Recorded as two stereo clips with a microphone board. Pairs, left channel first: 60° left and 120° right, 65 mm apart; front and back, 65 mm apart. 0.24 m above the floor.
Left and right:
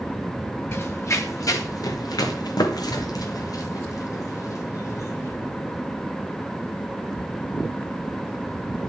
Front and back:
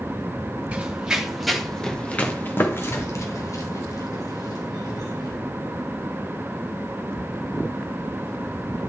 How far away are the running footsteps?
About 2.5 m.